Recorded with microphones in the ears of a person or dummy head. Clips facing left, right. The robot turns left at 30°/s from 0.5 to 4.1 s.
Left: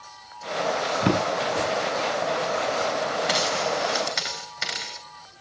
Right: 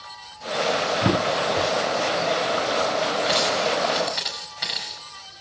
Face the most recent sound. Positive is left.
turn(degrees=45)  # may be behind; listen again after turning